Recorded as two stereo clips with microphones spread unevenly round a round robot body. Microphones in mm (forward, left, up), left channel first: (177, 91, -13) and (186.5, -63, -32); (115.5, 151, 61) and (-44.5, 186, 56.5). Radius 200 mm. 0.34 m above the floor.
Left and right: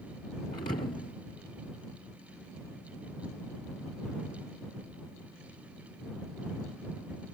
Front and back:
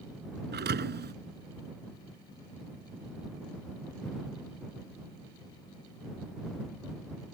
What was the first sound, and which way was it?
A thud, 155° left.